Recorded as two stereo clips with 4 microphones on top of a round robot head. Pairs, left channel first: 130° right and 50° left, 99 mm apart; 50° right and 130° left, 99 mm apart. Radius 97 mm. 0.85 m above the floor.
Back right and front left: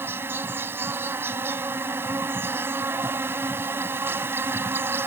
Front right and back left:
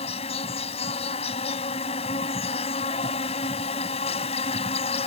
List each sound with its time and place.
0.0 s an insect: 20° right